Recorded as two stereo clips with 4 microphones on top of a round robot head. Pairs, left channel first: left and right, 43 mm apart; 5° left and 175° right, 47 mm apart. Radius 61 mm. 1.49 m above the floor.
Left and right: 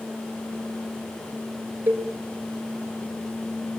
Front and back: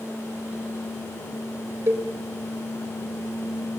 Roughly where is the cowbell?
Behind right.